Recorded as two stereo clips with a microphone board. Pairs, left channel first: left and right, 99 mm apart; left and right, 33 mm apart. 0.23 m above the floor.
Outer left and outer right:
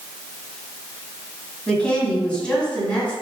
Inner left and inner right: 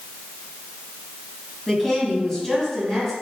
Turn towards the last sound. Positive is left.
turn(degrees=10)  # may be behind; listen again after turning